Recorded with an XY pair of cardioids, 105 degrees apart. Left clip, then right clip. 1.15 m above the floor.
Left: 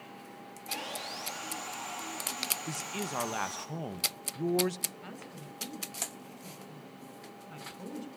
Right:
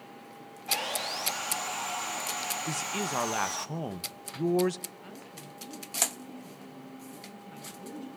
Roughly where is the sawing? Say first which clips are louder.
Right 7 dB; ahead right.